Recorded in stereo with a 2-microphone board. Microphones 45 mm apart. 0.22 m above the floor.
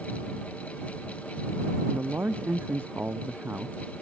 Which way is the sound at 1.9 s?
50° right (ahead or behind).